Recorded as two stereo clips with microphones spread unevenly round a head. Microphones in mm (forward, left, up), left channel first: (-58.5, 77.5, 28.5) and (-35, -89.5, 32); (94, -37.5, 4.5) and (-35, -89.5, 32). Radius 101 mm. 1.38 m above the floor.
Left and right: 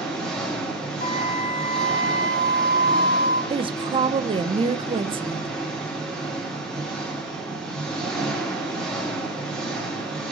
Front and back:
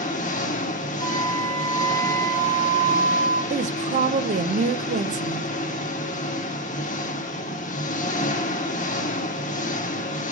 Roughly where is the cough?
I don't hear a cough.